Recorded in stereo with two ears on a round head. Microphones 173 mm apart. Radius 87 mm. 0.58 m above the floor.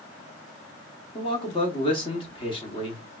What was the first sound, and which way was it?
A man speaking, 25° left (ahead or behind).